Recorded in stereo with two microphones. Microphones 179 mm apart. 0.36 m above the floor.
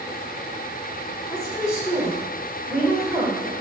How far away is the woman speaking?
About 1.1 m.